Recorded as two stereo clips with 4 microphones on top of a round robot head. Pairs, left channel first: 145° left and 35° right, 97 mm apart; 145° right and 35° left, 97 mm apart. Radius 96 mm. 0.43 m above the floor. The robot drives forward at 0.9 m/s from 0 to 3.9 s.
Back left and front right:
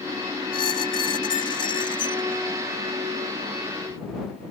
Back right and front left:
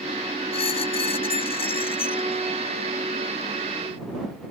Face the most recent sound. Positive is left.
turn(degrees=-175)